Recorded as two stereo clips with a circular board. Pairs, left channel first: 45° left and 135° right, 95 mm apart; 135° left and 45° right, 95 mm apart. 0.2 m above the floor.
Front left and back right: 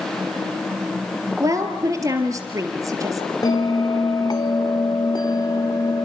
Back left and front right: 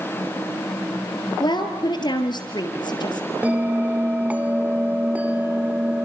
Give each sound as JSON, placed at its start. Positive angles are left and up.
{"t": 1.4, "sound": "a woman speaking", "azimuth_deg": 170, "distance_m": 3.5}
{"t": 3.4, "sound": "a bell", "azimuth_deg": 25, "distance_m": 1.8}